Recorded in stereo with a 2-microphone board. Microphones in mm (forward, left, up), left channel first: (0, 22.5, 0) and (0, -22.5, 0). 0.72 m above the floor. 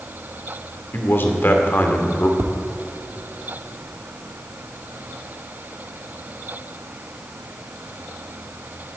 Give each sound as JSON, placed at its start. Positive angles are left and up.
{"t": 0.9, "sound": "a man speaking", "side_deg": 50, "distance_m": 2.0}
{"t": 2.4, "sound": "tapping", "side_deg": -65, "distance_m": 1.0}